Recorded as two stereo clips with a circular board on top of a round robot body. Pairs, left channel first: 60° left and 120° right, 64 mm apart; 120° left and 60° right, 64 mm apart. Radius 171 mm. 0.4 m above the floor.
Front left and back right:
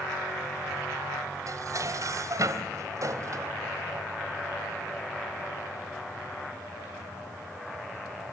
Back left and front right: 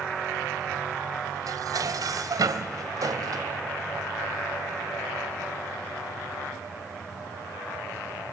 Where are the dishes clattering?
85° right, 2 m.